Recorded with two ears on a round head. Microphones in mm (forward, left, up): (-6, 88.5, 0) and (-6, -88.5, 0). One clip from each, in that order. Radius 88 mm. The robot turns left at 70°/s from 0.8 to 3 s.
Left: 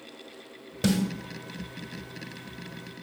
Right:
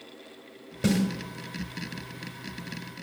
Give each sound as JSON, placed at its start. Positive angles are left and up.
{"t": 0.8, "sound": "a snare drum", "side_deg": 30, "distance_m": 1.6}